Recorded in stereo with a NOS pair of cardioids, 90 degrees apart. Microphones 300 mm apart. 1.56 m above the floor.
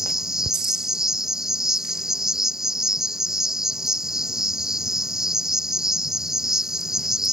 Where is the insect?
Straight ahead.